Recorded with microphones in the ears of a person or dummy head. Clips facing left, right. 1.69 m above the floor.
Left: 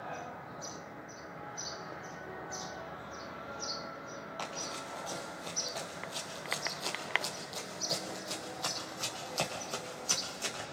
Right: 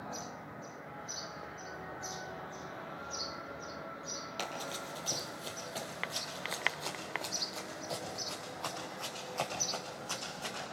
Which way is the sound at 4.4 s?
30° right (ahead or behind).